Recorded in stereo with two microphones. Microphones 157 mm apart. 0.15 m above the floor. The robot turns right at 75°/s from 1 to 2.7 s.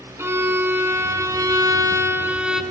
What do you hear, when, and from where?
0.2 s a violin: 15° right (ahead or behind), 0.8 m; by 2.6 s 5° right (ahead or behind), 0.8 m